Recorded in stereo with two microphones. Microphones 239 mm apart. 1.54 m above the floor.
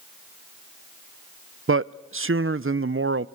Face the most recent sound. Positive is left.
turn(degrees=-60)  # may be behind; listen again after turning